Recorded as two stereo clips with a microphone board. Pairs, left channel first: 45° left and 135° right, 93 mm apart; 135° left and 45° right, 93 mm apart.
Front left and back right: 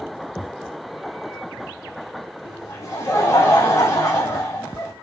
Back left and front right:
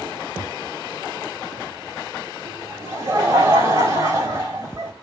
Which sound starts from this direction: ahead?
Laughter, at 2.4 s.